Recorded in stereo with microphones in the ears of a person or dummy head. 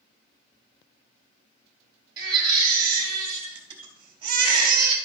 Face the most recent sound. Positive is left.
turn(degrees=-30)  # may be behind; listen again after turning